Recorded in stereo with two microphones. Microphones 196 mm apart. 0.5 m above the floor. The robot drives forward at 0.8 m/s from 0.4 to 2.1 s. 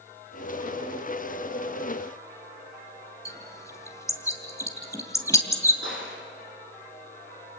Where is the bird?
15° left (ahead or behind), 2.5 m.